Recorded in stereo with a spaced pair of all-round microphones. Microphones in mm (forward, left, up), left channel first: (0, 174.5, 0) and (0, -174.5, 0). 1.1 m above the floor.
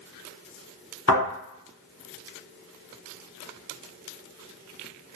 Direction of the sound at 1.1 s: 45° left (ahead or behind).